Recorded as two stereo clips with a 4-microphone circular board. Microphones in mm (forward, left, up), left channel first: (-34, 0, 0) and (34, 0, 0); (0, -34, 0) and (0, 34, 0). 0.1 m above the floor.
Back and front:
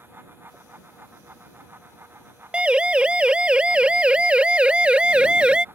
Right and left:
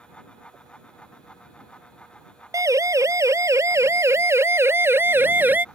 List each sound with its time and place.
2.5 s a siren: 70° left; by 5.7 s 60° left